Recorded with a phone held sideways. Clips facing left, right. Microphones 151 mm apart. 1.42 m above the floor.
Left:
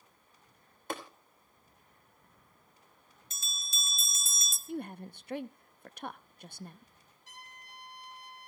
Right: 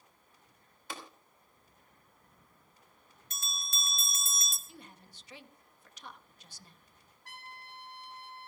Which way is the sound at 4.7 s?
55° left (ahead or behind).